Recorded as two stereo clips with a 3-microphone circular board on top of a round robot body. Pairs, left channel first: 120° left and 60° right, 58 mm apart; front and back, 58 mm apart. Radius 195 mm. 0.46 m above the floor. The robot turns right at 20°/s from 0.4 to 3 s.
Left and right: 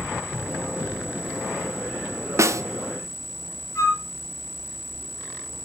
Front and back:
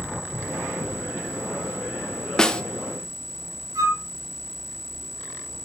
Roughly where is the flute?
Behind.